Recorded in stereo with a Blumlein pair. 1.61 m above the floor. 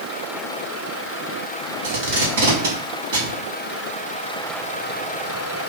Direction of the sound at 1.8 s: 60° right.